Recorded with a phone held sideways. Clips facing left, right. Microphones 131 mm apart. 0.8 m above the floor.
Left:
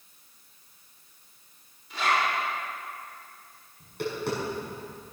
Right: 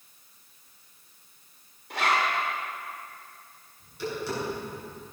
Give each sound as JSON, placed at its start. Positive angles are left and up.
{"t": 1.9, "sound": "a zipper", "side_deg": -65, "distance_m": 3.0}
{"t": 3.8, "sound": "tapping", "side_deg": 60, "distance_m": 6.0}